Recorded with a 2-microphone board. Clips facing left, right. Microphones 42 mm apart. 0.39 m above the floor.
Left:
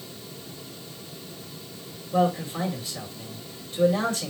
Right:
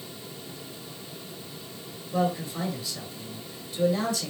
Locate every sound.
2.1 s a man speaking: 35° left (ahead or behind), 2 m